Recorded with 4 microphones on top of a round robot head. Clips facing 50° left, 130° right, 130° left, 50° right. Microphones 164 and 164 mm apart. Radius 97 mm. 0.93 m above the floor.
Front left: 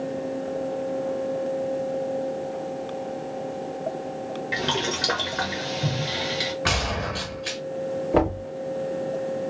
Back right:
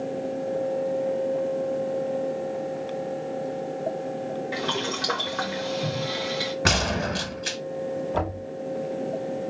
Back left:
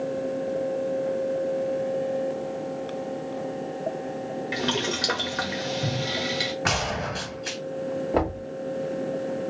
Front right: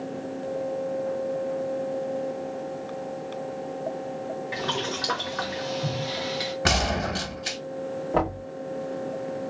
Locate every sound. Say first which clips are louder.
4.5 s boiling: front left 1 dB, back left 3 dB; 100° left, 0.7 m
6.7 s a gunshot: back right 2 dB, front right 2 dB; 100° right, 1.1 m
8.1 s knocking: front left 7 dB, even; 50° left, 2 m